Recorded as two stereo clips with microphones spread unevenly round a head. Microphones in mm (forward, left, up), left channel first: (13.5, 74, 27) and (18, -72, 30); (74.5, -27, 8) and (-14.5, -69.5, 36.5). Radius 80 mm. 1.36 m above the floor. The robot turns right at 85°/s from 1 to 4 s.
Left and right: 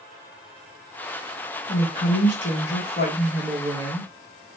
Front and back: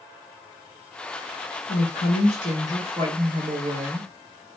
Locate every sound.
1.7 s a woman speaking: 35° left, 1.1 m; by 4.1 s 130° right, 1.1 m